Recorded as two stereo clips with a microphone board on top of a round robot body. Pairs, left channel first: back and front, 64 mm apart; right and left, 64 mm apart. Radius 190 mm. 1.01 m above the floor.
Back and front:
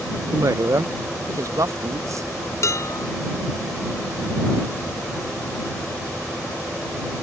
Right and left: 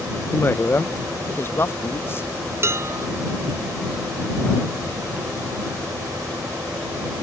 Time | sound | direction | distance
0.3 | a woman speaking | 35° right | ?
2.6 | dishes clattering | 140° left | ?